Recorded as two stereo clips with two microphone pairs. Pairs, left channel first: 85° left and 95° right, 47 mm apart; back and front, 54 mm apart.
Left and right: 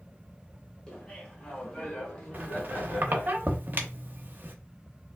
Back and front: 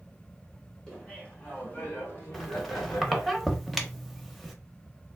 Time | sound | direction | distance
0.9 | laughter | 130° left | 1.3 m
2.3 | a squeak | 85° right | 0.7 m